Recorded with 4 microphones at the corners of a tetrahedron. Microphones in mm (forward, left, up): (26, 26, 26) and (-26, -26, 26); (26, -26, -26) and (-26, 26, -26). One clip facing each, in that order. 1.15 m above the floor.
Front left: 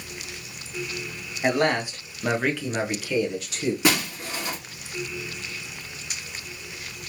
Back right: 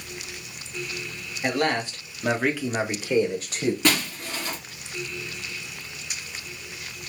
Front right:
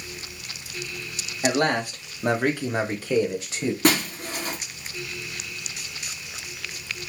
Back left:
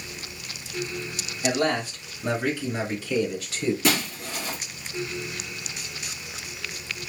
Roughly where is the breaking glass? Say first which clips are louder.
Front left 1 dB, front right 3 dB; ahead right.